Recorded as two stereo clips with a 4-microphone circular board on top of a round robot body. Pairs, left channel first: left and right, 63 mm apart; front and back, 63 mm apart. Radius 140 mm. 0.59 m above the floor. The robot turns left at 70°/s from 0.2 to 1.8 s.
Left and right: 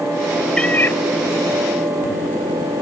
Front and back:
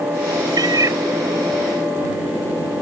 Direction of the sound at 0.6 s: 170° left.